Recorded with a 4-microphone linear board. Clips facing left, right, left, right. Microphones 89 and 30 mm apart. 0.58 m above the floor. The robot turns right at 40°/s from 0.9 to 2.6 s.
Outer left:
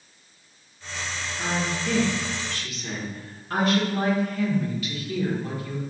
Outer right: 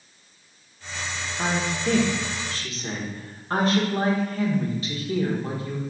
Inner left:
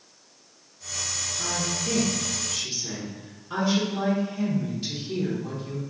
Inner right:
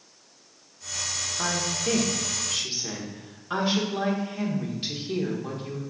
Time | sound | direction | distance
1.4 | a woman speaking | 85° right | 1.1 m